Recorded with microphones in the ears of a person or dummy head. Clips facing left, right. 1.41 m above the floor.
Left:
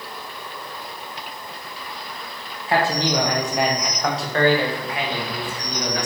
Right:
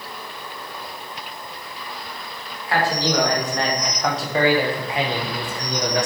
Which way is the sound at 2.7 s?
25° left (ahead or behind).